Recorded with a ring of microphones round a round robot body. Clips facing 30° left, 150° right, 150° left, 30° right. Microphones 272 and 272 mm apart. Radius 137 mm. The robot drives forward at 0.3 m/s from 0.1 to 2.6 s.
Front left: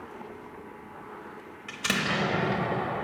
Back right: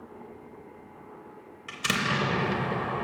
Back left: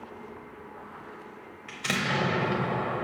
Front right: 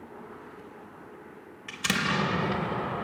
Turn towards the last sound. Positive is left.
turn(degrees=-105)